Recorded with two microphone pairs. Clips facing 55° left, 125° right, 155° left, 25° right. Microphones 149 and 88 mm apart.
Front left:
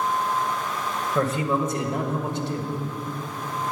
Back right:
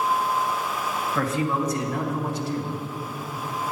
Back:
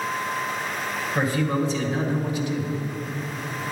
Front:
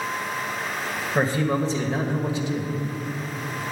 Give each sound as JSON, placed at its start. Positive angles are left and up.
{"t": 1.1, "sound": "a man speaking", "azimuth_deg": 15, "distance_m": 1.3}